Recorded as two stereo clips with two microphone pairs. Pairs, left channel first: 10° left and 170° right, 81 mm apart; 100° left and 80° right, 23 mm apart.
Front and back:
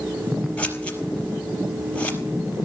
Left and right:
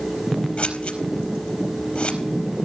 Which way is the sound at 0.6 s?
80° left.